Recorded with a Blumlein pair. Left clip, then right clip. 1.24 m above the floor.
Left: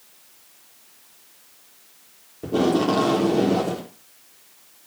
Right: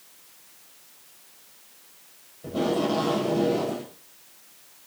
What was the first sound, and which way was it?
Tape being pulled, 45° left.